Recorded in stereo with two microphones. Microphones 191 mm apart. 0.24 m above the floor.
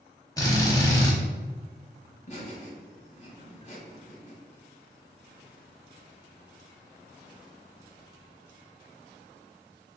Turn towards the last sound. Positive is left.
turn(degrees=40)  # may be behind; listen again after turning